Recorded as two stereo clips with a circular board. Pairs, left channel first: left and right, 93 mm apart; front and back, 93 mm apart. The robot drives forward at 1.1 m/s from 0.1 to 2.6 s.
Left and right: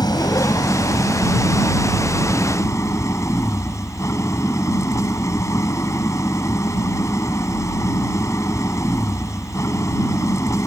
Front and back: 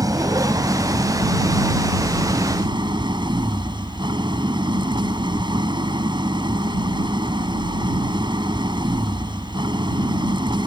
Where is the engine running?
130° left; by 10.7 s 145° left.